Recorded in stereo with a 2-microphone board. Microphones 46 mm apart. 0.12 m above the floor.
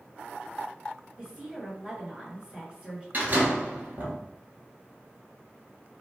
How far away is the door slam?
About 1.1 m.